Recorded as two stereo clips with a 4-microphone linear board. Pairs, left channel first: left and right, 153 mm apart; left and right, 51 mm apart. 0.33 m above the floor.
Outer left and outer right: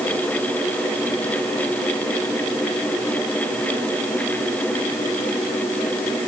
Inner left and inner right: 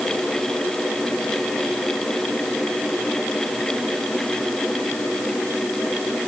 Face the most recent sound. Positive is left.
No sound to turn to.